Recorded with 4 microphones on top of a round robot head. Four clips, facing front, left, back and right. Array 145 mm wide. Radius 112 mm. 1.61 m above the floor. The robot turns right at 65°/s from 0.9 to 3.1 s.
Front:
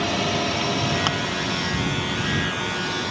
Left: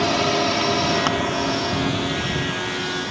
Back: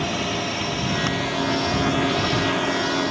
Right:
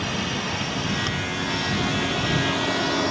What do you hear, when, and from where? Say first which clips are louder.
0.0 s a drone: left 8 dB, front 2 dB; 90° left; by 3.1 s 125° right
1.1 s chewing: left 8 dB, even; 65° left; by 1.2 s 70° left